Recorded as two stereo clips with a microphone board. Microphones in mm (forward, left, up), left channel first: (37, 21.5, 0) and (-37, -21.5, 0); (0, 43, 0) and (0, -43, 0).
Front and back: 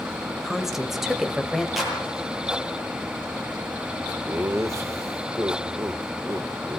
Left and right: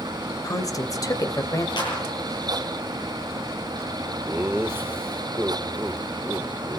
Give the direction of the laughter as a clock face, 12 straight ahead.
4 o'clock.